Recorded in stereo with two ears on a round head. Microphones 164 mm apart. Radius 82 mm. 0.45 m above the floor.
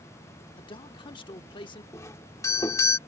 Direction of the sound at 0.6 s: 25° left (ahead or behind).